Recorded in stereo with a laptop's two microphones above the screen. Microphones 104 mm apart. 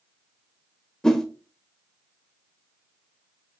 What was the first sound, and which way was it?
A whoosh, 5° left (ahead or behind).